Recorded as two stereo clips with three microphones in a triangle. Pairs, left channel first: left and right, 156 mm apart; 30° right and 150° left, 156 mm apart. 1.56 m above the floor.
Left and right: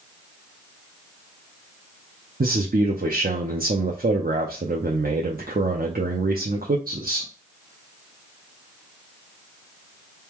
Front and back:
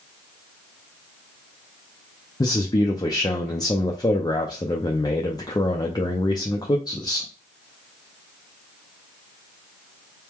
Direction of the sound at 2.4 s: 95° right.